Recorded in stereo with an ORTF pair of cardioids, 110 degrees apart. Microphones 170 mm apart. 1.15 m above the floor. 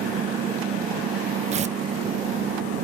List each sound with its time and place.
0.0 s an engine running: 55° right
1.5 s tearing paper: 45° right